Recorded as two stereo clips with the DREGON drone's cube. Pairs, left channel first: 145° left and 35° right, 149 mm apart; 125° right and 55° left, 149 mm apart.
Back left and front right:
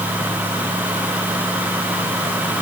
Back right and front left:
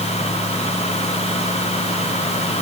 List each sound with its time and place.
Only background noise.